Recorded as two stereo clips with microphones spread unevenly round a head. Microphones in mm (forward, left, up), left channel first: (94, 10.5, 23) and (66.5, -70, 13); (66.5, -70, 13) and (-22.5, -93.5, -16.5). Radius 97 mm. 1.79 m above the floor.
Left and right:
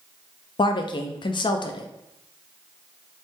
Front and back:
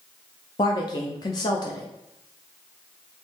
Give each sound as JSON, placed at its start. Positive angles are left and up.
{"t": 0.6, "sound": "a woman speaking", "azimuth_deg": 50, "distance_m": 0.5}